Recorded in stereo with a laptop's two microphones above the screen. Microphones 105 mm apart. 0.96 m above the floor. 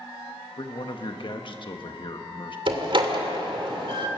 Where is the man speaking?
50° left (ahead or behind), 1.3 m.